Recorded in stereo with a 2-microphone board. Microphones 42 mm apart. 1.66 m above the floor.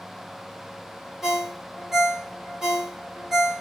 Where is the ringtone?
5° right (ahead or behind), 1.3 m.